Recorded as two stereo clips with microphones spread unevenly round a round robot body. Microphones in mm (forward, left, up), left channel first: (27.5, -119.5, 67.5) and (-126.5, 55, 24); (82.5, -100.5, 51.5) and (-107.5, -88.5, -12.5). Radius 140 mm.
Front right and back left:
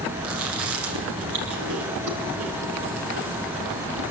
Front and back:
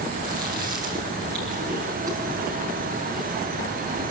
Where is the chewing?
105° left, 6 m.